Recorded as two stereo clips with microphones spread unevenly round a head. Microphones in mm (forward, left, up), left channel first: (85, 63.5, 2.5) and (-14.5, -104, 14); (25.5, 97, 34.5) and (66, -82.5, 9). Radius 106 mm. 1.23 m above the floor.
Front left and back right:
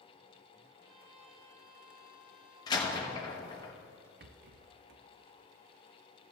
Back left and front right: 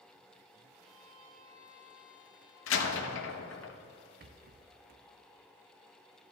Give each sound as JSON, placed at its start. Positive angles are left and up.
{"t": 0.8, "sound": "a violin", "azimuth_deg": -90, "distance_m": 3.5}
{"t": 2.7, "sound": "a door slam", "azimuth_deg": 135, "distance_m": 0.9}
{"t": 4.2, "sound": "a rattle", "azimuth_deg": -95, "distance_m": 0.7}